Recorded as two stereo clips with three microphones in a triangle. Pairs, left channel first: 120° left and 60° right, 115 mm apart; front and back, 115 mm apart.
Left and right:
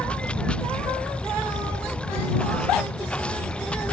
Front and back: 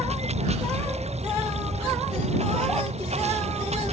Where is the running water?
160° right.